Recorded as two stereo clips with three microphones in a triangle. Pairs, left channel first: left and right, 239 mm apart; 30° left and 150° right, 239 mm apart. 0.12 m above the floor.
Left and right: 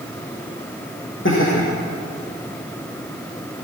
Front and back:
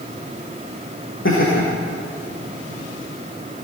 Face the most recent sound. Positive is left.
turn(degrees=60)